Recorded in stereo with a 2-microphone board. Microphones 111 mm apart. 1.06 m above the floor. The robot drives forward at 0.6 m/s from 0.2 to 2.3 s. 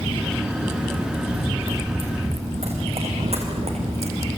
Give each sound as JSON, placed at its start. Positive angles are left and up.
{"t": 1.3, "sound": "running footsteps", "side_deg": -55, "distance_m": 6.0}